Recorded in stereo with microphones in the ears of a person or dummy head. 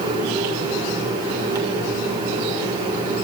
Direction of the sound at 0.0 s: 25° right (ahead or behind).